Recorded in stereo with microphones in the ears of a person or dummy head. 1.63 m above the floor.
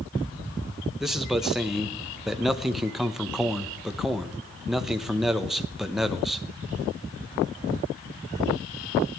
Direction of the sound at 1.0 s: 5° right (ahead or behind).